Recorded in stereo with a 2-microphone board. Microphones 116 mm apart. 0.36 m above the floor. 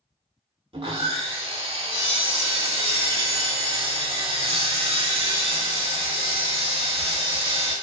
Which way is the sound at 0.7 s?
60° right (ahead or behind).